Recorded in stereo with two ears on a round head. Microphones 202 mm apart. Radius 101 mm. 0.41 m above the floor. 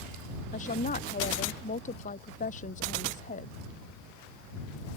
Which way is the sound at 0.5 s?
35° left (ahead or behind).